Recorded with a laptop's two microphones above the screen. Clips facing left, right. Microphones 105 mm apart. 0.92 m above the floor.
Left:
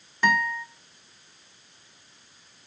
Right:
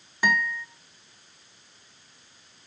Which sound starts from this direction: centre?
A guitar, at 0.2 s.